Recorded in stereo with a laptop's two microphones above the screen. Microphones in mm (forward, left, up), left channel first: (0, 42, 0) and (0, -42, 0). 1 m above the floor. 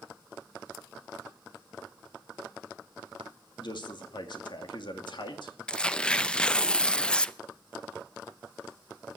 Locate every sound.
3.6 s a man speaking: 65° left (ahead or behind), 2.5 m
5.7 s tearing paper: 15° left (ahead or behind), 0.5 m